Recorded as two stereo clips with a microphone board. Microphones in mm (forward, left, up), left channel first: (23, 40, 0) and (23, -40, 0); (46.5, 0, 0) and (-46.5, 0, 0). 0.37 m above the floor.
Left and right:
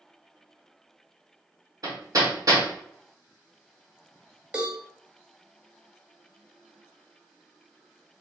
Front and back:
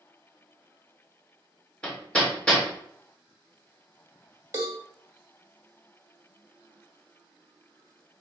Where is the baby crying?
I don't hear a baby crying.